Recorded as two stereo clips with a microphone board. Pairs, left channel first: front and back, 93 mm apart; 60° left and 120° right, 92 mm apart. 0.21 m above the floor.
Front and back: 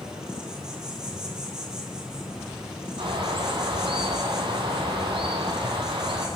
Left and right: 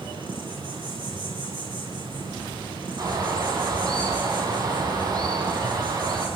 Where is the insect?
95° right, 9 m.